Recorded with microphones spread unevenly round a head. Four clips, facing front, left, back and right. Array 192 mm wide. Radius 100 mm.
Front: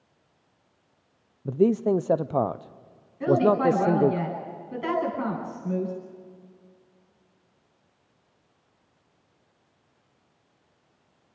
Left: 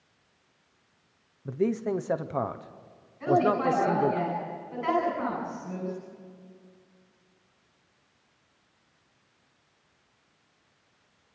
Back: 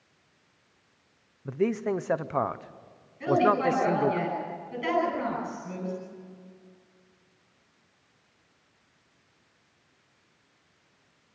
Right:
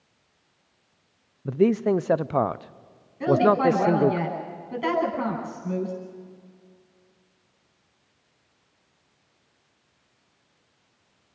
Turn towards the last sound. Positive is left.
turn(degrees=-70)